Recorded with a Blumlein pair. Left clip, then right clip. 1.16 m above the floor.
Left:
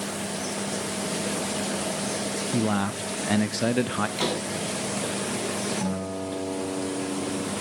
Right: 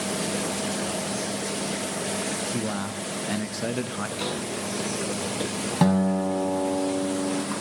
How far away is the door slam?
About 7 m.